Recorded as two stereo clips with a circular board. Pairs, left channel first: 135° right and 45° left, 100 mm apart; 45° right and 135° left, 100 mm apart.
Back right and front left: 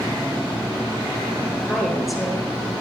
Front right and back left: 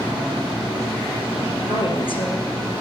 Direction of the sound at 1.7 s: 45° right.